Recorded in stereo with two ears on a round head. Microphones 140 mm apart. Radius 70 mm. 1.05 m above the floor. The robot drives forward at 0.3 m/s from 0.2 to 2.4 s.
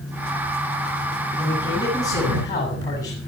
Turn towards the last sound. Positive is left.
turn(degrees=25)  # may be behind; listen again after turning